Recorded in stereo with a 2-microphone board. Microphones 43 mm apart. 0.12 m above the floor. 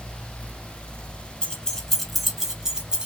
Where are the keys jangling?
25° left (ahead or behind), 0.8 m; by 3.1 s 20° right (ahead or behind), 1.1 m.